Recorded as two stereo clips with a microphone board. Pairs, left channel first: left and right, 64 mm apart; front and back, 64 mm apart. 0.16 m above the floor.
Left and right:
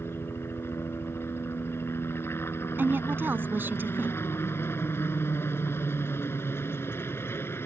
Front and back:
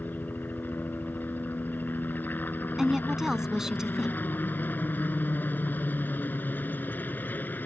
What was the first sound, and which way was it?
A helicopter, 55° left.